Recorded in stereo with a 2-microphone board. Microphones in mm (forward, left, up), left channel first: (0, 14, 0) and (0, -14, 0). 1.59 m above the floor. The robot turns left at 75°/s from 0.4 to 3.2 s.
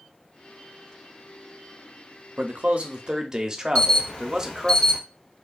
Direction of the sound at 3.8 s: 40° left (ahead or behind).